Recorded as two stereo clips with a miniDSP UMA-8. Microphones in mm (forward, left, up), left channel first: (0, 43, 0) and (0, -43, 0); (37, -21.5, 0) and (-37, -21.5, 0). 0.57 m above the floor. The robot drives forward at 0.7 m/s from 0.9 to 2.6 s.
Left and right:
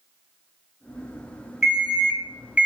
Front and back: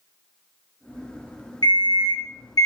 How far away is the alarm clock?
About 1.2 m.